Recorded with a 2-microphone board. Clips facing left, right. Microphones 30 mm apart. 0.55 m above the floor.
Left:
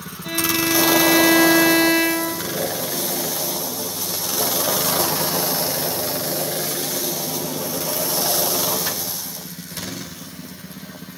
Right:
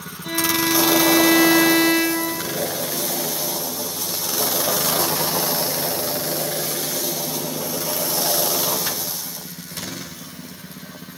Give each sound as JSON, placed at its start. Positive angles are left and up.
{"t": 0.2, "sound": "a violin", "side_deg": 0, "distance_m": 2.5}